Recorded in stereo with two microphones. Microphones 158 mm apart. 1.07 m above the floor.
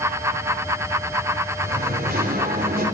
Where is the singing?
80° right, 4 m.